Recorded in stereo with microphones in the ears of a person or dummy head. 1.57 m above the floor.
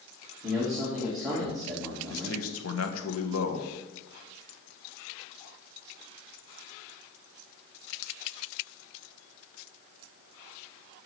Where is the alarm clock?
I don't hear an alarm clock.